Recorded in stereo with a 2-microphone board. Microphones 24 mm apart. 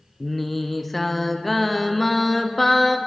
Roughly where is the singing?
Centre.